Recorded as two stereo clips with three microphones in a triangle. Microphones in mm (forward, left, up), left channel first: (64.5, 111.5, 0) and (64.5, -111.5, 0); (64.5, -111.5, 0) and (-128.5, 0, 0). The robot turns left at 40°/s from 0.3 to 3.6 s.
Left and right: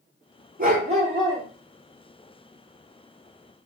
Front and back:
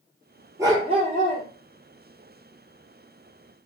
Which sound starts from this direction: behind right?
A dog barking, at 0.6 s.